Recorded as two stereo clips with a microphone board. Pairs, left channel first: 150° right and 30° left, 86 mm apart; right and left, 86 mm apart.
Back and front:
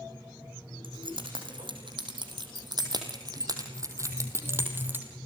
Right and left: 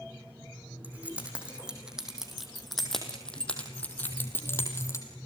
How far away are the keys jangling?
About 4.5 m.